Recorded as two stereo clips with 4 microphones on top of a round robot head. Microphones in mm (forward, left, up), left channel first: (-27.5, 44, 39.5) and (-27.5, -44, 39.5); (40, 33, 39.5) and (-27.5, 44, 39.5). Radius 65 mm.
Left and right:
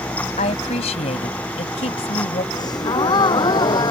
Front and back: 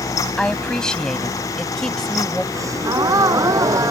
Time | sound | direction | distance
0.4 | a woman speaking | 70° left | ?
2.5 | a gasp | 130° left | ?